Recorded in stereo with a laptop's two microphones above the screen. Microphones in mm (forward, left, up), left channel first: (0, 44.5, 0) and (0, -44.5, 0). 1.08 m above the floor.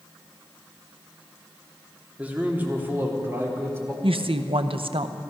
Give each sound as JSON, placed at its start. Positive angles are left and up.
{"t": 2.2, "sound": "a man speaking", "side_deg": -15, "distance_m": 2.0}
{"t": 4.0, "sound": "a woman speaking", "side_deg": -70, "distance_m": 0.7}